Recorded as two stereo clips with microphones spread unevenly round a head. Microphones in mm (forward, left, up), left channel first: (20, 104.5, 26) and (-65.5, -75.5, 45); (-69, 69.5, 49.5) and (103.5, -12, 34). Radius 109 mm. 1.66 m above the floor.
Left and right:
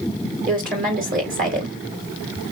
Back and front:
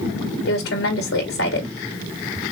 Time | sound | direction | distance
0.5 | a woman speaking | 160° right | 3 m